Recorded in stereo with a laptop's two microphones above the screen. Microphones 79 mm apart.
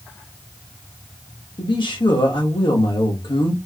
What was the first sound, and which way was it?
A man speaking, 70° left (ahead or behind).